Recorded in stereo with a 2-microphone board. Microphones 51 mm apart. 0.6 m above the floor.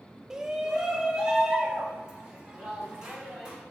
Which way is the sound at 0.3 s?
10° right (ahead or behind).